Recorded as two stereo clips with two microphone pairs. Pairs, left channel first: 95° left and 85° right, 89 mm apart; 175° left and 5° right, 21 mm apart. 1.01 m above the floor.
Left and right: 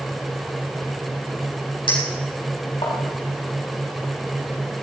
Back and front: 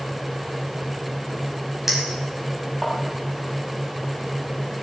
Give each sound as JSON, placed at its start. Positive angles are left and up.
{"t": 1.9, "sound": "a clink", "azimuth_deg": 70, "distance_m": 5.0}